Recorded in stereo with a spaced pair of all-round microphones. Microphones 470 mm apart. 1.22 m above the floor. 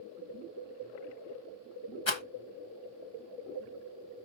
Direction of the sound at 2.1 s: 70° left (ahead or behind).